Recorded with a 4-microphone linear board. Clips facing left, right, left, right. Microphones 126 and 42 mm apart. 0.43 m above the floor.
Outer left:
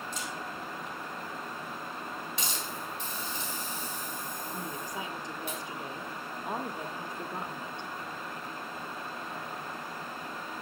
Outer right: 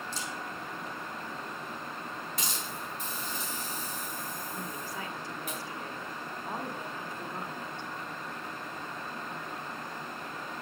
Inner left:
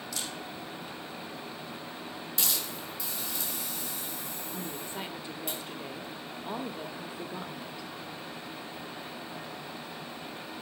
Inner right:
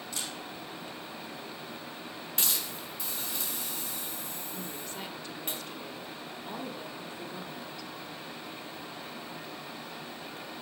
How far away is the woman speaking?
About 0.7 m.